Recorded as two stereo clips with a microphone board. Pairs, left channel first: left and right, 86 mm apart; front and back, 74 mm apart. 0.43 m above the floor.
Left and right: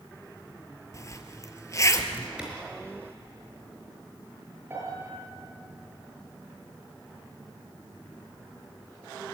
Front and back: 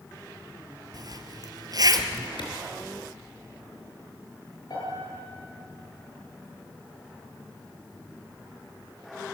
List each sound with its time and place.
0.9 s a zipper: 145° left, 1.7 m
2.4 s a clap: 10° right, 5.5 m
4.7 s a piano: 25° right, 9.5 m